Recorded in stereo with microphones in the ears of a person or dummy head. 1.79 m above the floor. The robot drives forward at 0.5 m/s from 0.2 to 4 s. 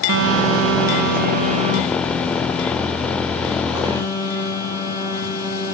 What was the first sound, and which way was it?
A phone buzzing, 70° right (ahead or behind).